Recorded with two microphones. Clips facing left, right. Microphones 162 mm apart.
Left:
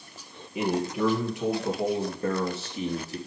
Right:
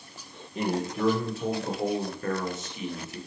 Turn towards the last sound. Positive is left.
turn(degrees=35)  # may be behind; listen again after turning